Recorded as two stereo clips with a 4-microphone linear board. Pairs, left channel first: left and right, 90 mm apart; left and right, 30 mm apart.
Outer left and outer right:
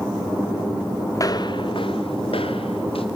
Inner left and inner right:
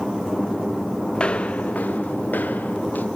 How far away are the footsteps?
About 0.9 m.